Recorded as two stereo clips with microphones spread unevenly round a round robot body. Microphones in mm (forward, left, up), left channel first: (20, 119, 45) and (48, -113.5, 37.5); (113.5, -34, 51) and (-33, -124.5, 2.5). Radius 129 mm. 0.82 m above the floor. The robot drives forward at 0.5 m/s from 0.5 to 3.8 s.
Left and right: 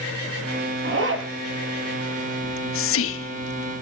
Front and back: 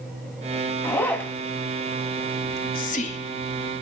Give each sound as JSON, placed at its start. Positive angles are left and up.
{"t": 0.8, "sound": "a zipper", "azimuth_deg": -45, "distance_m": 3.0}
{"t": 2.4, "sound": "whispering", "azimuth_deg": 75, "distance_m": 1.3}